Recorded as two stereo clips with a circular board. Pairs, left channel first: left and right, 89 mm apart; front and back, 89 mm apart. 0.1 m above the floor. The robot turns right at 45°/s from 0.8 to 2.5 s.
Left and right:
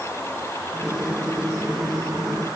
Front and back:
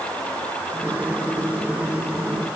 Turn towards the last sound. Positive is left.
No sound to turn to.